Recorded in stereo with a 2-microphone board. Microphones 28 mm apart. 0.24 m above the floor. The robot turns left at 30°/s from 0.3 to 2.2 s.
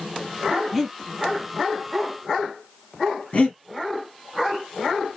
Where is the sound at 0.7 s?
5° right (ahead or behind), 0.6 m; by 1.0 s centre (ahead or behind), 0.6 m.